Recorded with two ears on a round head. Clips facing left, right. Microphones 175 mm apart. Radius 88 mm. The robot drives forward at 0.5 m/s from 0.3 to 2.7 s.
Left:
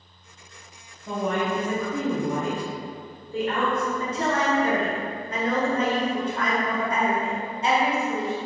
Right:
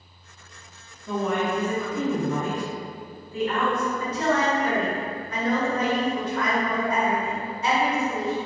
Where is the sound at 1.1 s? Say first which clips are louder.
Right 1 dB; 45° left (ahead or behind), 1.1 m; by 3.9 s 35° left (ahead or behind), 1.4 m.